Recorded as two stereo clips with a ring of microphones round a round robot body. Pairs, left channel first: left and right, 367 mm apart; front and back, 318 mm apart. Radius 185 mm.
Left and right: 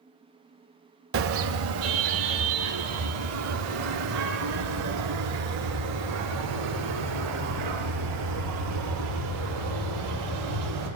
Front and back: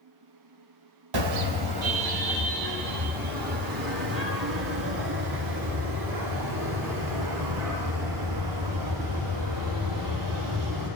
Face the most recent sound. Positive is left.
turn(degrees=-140)